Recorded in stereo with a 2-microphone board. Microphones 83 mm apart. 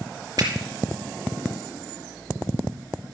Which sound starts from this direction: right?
A finger snap, at 0.4 s.